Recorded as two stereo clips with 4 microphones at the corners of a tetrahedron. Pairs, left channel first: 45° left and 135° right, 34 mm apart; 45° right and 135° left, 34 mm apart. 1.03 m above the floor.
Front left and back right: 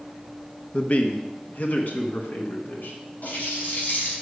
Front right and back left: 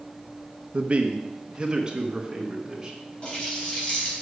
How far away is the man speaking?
About 1.1 m.